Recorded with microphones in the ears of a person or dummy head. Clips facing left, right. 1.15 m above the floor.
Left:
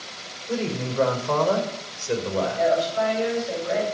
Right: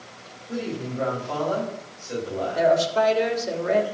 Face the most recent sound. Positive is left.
turn(degrees=-70)  # may be behind; listen again after turning